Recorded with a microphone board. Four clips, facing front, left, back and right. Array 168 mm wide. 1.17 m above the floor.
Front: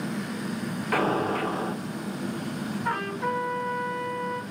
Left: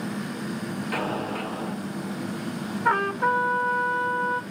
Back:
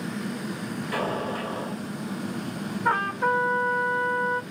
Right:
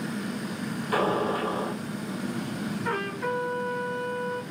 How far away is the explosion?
About 2.5 m.